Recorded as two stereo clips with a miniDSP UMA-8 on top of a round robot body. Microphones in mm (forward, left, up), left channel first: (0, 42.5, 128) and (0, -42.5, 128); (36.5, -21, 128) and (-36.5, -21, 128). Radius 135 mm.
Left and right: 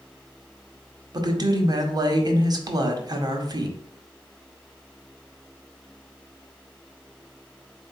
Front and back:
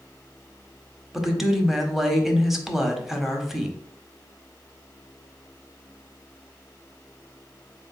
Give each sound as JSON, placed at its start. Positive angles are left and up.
{"t": 1.1, "sound": "a woman speaking", "azimuth_deg": -95, "distance_m": 1.0}